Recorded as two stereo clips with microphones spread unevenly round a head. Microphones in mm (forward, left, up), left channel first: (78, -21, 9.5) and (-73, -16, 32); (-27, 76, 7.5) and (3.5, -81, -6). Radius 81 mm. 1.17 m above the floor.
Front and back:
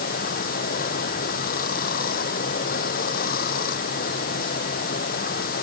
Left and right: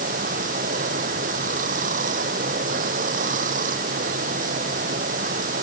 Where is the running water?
35° right.